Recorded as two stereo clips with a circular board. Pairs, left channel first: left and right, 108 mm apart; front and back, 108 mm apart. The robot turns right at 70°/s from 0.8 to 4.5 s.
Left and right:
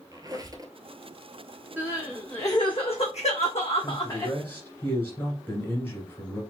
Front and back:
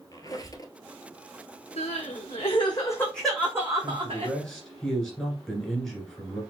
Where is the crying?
15° right, 1.8 m; by 4.3 s 165° left, 1.8 m.